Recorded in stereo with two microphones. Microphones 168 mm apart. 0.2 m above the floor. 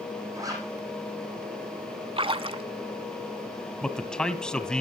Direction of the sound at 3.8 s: 5° left (ahead or behind).